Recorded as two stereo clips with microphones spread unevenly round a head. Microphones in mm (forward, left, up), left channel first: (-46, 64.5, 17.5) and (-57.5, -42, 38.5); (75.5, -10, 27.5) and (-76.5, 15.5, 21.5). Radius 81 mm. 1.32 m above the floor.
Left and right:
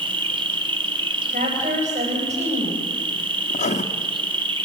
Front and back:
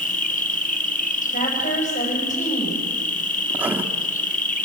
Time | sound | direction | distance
0.0 | an insect | 45° right | 1.7 m
1.3 | a woman speaking | 55° right | 9.5 m
3.5 | writing | 90° left | 1.9 m